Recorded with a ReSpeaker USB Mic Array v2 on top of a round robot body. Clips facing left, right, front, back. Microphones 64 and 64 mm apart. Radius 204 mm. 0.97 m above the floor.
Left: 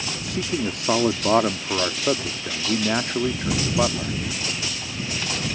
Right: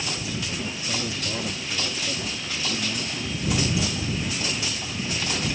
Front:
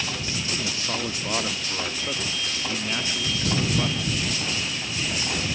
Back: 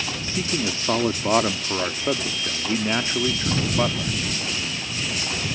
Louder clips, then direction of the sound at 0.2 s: Left 5 dB, back 4 dB; 120° left.